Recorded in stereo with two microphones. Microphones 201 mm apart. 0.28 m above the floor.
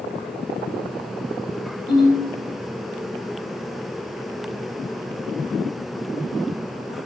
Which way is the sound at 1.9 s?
5° left (ahead or behind).